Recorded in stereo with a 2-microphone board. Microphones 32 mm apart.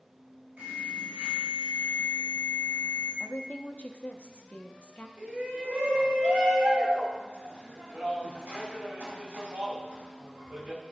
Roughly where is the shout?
Right.